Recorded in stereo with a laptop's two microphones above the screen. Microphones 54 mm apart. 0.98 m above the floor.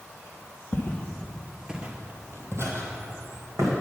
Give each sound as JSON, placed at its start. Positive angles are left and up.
{"t": 0.7, "sound": "footsteps", "side_deg": 45, "distance_m": 1.4}